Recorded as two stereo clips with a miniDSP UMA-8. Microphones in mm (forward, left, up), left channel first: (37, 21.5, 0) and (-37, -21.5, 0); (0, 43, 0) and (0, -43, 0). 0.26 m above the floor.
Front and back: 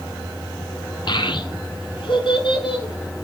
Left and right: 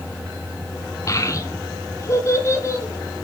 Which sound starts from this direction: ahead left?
A child speaking, at 1.1 s.